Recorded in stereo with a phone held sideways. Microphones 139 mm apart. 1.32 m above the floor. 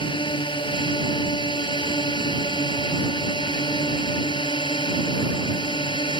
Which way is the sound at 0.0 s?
35° left (ahead or behind).